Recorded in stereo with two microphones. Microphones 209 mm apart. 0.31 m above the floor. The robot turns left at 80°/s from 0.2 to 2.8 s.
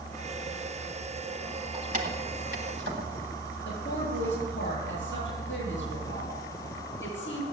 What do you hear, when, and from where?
1.7 s keys jangling: 25° right (ahead or behind), 1.5 m; by 3.5 s 55° right (ahead or behind), 1.5 m
3.6 s a woman speaking: 60° left (ahead or behind), 7 m